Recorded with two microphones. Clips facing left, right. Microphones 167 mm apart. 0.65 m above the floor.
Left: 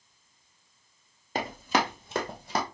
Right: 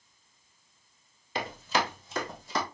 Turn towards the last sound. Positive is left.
turn(degrees=60)  # may be behind; listen again after turning